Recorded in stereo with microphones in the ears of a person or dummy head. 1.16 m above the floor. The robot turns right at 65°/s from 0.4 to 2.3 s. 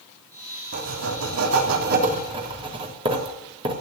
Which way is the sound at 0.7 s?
130° right.